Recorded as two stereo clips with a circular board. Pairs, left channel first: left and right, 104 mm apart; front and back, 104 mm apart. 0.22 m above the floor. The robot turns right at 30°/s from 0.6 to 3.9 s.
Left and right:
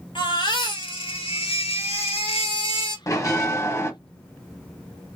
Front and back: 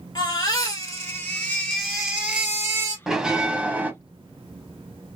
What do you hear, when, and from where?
0.1 s a baby crying: 55° left, 1.8 m; by 3.0 s 125° left, 1.8 m
3.1 s a bell: 100° left, 0.9 m; by 3.9 s 125° left, 0.9 m